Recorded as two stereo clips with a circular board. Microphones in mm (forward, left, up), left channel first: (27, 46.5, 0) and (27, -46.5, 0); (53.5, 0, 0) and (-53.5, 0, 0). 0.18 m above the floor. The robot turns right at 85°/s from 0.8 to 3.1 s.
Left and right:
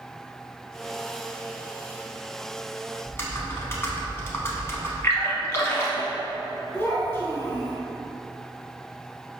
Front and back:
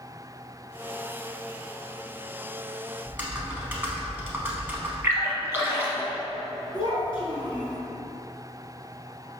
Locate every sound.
3.0 s typing on a keyboard: 120° left, 0.6 m; by 4.9 s 125° left, 0.6 m
5.0 s a splash: 125° left, 0.7 m
6.7 s a child speaking: 30° left, 1.3 m